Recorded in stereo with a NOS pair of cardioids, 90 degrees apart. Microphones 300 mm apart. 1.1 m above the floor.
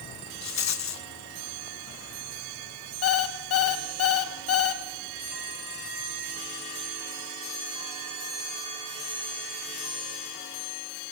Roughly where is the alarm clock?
Ahead left.